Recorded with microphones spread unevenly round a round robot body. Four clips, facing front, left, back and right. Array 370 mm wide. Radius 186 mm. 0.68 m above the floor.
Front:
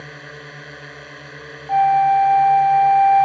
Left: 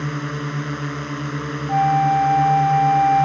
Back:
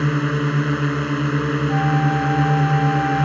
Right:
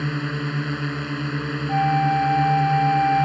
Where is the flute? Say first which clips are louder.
Left 4 dB, front 10 dB; straight ahead.